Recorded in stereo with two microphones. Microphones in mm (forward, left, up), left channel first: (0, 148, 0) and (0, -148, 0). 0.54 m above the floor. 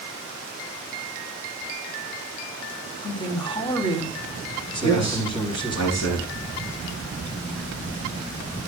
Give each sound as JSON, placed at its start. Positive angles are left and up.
{"t": 3.0, "sound": "a man speaking", "side_deg": 15, "distance_m": 5.0}
{"t": 4.8, "sound": "a man speaking", "side_deg": 60, "distance_m": 6.0}